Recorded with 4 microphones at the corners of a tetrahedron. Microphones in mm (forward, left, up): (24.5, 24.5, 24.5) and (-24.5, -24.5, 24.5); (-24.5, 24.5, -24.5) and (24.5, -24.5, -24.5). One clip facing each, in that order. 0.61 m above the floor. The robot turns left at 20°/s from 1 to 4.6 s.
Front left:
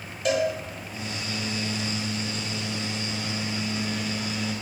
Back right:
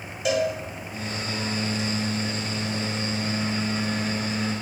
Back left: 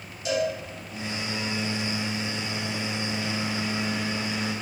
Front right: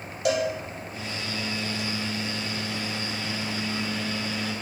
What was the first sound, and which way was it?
A cowbell, 45° right.